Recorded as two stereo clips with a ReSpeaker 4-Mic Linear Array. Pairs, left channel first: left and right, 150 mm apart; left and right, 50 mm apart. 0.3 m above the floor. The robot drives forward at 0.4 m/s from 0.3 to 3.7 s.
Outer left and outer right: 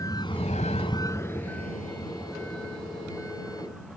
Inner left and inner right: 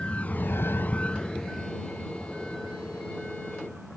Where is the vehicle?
25° left (ahead or behind); by 4.0 s centre (ahead or behind).